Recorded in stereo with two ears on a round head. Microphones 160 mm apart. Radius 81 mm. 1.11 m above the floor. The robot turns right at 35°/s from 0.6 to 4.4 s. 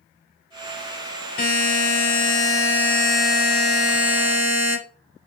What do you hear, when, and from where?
1.4 s a buzzer: 120° left, 3.5 m; by 4.8 s 135° right, 3.5 m